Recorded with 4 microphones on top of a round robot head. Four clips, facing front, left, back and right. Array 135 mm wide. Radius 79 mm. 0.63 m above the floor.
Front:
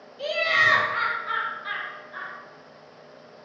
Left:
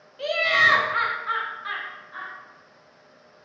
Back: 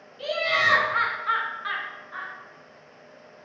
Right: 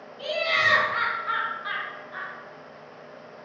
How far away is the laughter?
About 1.2 m.